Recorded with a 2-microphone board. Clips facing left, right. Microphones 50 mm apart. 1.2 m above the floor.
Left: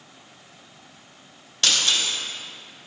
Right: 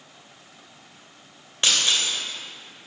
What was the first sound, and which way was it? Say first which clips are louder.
Breaking glass: even; 20° right (ahead or behind).